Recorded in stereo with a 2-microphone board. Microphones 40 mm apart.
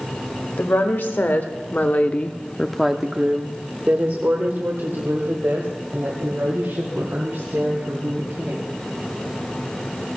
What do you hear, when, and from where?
0.6 s a woman speaking: 60° left (ahead or behind), 1.8 m; by 8.7 s 80° right, 4.5 m